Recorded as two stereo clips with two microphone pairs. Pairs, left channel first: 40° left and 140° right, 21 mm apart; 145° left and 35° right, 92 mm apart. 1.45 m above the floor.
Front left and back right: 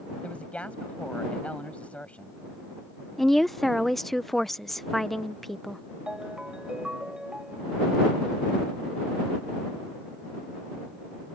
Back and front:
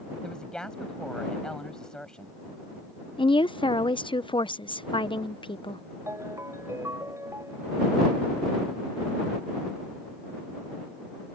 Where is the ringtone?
90° right.